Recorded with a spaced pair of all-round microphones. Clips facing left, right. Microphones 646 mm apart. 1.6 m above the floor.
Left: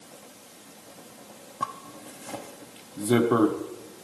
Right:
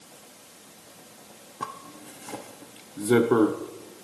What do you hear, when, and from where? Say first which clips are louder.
1.6 s a zipper: even; 10° left (ahead or behind), 0.6 m